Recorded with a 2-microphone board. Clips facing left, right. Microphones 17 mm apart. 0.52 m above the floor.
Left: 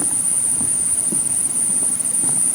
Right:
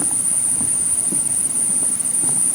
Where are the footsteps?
I don't hear footsteps.